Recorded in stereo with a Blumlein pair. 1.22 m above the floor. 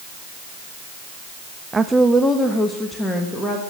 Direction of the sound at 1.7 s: 15° right.